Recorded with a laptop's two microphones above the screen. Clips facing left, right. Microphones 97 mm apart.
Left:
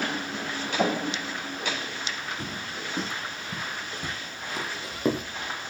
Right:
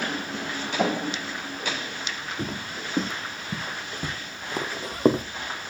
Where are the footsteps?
50° right (ahead or behind), 2 m; by 5.2 s 35° right (ahead or behind), 1.2 m.